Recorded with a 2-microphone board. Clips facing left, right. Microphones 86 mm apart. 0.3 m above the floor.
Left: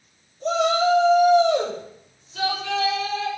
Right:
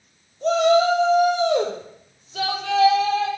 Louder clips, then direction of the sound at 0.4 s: Right 3 dB; 80° right.